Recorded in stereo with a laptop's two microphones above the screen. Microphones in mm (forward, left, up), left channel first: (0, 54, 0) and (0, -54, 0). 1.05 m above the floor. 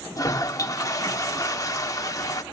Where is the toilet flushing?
35° left (ahead or behind), 1.3 m.